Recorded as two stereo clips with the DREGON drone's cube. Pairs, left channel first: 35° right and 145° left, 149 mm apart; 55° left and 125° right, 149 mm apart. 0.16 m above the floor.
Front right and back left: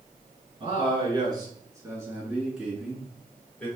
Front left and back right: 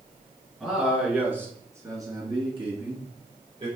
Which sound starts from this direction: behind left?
A man speaking, at 0.6 s.